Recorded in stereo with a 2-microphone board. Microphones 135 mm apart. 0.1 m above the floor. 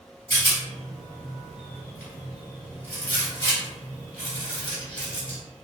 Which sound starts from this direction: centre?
A rattle, at 0.3 s.